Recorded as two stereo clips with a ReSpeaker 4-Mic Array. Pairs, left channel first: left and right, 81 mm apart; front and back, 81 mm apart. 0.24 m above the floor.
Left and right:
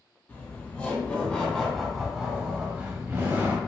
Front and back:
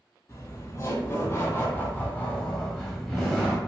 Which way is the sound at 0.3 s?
40° left.